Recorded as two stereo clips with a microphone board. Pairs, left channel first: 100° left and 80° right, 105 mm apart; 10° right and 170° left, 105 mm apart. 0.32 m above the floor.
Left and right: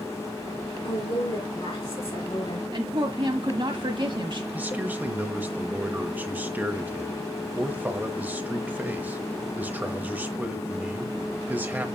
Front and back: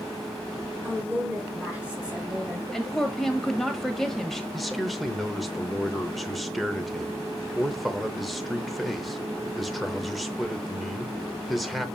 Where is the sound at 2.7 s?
95° right, 1.5 m.